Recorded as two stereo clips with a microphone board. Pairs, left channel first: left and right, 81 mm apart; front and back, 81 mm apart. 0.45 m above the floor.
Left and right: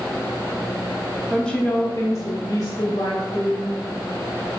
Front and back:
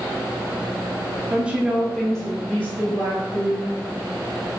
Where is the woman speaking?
170° left, 0.7 m; by 3.7 s 65° left, 2.0 m.